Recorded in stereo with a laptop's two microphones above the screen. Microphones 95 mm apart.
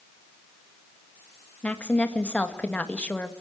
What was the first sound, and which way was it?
A woman speaking, 15° left (ahead or behind).